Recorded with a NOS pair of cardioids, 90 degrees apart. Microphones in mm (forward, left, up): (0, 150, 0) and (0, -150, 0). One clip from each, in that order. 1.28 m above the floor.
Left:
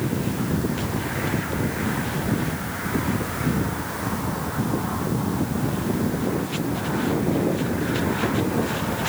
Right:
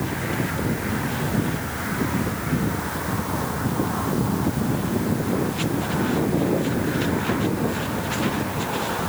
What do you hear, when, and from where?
Only background noise.